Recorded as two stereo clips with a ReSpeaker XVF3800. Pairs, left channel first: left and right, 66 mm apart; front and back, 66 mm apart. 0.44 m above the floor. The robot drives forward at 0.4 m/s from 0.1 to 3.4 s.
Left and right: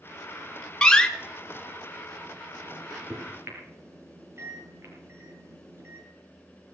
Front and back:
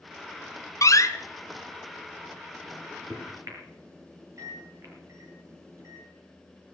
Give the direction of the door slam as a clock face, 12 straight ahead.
12 o'clock.